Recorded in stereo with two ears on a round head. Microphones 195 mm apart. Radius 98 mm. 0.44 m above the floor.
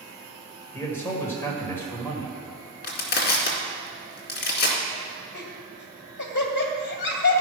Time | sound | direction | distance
0.7 | a man speaking | 10° left (ahead or behind) | 2 m
2.8 | crushing | 50° left (ahead or behind) | 1.8 m
5.3 | laughter | 55° left (ahead or behind) | 2.0 m